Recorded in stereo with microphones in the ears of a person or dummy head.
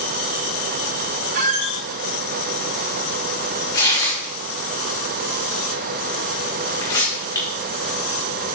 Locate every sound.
1.3 s a squeak: 60° right (ahead or behind), 1.8 m
3.7 s tearing paper: 20° left (ahead or behind), 4.5 m